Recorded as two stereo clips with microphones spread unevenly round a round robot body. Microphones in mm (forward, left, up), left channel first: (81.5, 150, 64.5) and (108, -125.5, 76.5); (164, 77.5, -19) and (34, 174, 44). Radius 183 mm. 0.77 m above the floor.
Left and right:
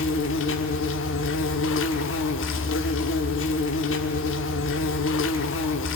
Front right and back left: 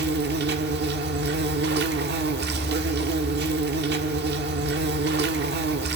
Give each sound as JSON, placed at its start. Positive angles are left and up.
{"t": 0.0, "sound": "an insect", "azimuth_deg": 150, "distance_m": 0.8}